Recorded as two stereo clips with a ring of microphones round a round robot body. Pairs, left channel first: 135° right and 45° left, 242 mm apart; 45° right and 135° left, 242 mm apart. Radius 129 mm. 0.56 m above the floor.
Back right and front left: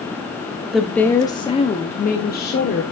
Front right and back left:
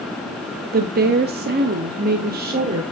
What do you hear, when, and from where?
0.7 s a woman speaking: 130° left, 0.9 m; by 2.8 s 175° right, 1.5 m